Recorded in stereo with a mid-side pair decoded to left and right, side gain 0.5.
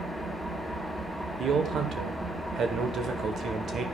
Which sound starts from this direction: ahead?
An engine running, at 0.0 s.